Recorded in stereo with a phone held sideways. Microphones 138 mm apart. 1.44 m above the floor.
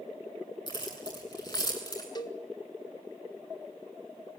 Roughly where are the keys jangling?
Left.